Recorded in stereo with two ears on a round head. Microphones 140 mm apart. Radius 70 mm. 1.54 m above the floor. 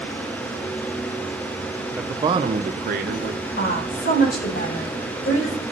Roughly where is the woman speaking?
Left.